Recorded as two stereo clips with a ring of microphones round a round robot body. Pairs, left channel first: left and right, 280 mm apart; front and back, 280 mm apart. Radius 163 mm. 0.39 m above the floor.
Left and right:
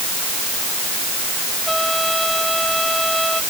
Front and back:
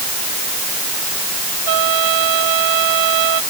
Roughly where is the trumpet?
Behind.